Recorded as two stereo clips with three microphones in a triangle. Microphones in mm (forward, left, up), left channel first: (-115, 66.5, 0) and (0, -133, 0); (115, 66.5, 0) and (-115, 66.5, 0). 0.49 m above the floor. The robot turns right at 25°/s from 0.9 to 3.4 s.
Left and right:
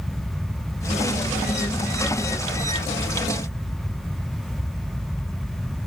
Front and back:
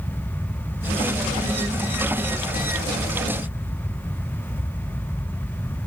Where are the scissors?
I don't hear scissors.